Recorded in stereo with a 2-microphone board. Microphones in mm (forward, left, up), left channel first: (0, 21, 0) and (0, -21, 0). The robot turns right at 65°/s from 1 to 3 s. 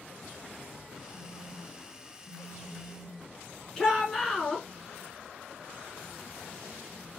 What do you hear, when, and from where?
1.1 s a phone buzzing: 20° right (ahead or behind), 1.7 m; by 3.3 s centre (ahead or behind), 1.7 m
3.8 s a shout: 10° left (ahead or behind), 1.4 m